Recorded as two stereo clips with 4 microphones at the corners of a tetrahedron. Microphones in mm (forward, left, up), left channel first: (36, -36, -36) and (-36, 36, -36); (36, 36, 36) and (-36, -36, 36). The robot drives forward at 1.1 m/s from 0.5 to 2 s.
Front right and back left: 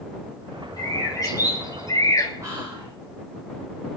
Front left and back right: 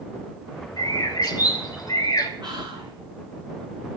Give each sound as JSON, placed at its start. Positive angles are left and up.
{"t": 0.8, "sound": "a bird", "azimuth_deg": 0, "distance_m": 3.5}
{"t": 2.4, "sound": "whispering", "azimuth_deg": -170, "distance_m": 7.0}